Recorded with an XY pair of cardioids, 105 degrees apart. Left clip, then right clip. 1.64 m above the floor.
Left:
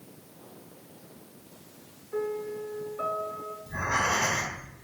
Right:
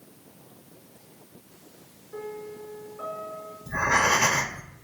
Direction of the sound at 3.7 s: 50° right.